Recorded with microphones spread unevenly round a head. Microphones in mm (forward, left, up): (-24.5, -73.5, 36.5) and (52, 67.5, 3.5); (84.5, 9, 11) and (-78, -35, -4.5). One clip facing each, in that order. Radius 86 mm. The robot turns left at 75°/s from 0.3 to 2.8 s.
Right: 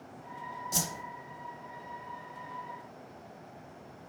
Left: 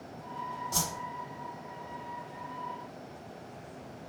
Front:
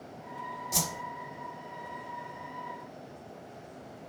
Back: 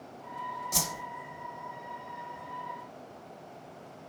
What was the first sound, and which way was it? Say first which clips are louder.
A whoosh: right 1 dB, front 3 dB; 65° right.